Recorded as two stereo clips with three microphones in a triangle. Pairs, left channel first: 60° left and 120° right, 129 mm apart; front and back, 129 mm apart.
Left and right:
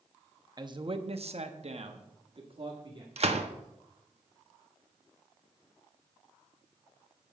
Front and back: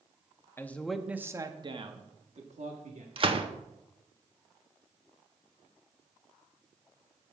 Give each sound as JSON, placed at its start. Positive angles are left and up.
{"t": 0.6, "sound": "a man speaking", "azimuth_deg": -70, "distance_m": 0.8}
{"t": 3.2, "sound": "a gunshot", "azimuth_deg": -140, "distance_m": 0.8}